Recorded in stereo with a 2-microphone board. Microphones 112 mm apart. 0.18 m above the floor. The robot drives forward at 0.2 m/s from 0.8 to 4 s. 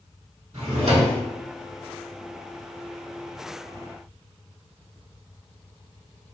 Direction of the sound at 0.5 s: 75° right (ahead or behind).